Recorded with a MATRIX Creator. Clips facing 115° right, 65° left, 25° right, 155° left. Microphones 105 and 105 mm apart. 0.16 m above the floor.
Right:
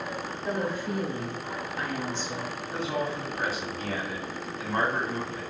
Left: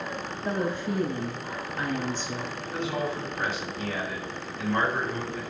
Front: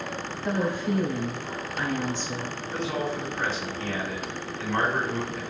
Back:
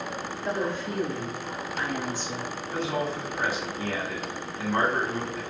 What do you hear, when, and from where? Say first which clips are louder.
0.4 s a woman speaking: left 2 dB, front 3 dB; 85° right, 1.5 m; by 2.6 s 115° left, 1.5 m
2.7 s a man speaking: even, even; 120° right, 1.9 m